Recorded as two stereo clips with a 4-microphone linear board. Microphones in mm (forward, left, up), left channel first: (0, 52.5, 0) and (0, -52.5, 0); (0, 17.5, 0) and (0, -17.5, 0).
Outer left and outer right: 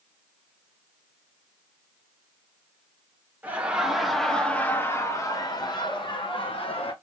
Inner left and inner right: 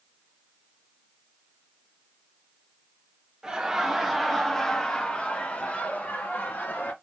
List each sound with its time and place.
3.4 s laughter: 15° right (ahead or behind), 1.2 m; by 6.9 s 60° left (ahead or behind), 1.6 m